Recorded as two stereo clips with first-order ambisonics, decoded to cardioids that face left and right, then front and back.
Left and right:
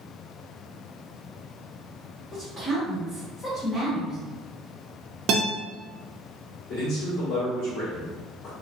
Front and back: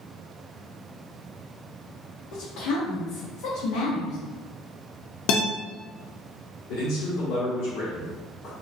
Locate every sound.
2.3 s a woman speaking: 15° left, 0.9 m
5.3 s a guitar: 35° right, 0.6 m
6.7 s a man speaking: 35° left, 1.5 m